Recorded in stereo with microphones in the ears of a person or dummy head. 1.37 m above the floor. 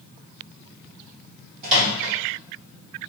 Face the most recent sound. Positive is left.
turn(degrees=-40)  # may be behind; listen again after turning